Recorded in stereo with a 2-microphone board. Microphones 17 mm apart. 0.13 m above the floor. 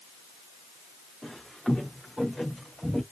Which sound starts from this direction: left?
Footsteps, at 1.2 s.